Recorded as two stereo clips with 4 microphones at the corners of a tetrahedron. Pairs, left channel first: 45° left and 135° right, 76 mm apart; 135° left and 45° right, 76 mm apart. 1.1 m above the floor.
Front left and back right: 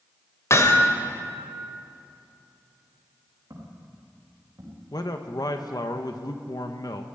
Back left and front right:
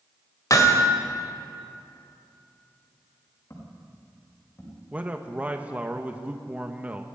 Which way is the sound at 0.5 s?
95° left.